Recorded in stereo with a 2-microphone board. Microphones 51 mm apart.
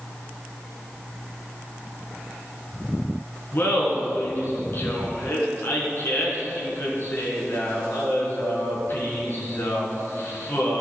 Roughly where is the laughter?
Left.